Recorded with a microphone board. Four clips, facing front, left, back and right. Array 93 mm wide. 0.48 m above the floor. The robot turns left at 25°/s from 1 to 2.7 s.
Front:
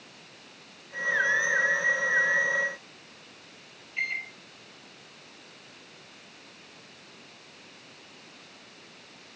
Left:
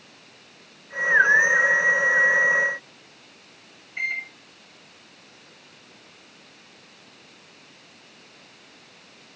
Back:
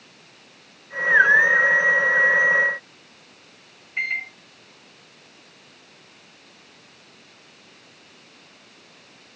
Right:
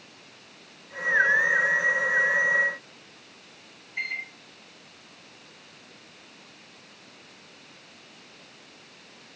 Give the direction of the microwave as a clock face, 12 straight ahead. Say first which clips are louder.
Left 4 dB, back 5 dB; 7 o'clock.